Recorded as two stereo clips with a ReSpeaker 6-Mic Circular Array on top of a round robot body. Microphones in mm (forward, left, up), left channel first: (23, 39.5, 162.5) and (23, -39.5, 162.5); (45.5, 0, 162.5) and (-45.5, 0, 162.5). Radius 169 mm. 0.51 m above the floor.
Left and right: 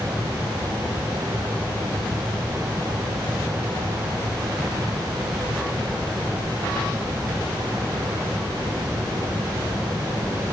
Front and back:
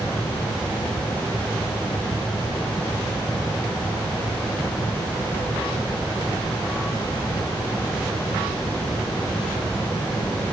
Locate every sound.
Only background noise.